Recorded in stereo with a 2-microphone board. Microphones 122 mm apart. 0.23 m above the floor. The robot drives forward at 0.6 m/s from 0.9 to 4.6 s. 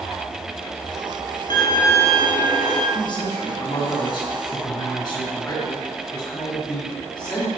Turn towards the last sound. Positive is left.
turn(degrees=35)  # may be behind; listen again after turning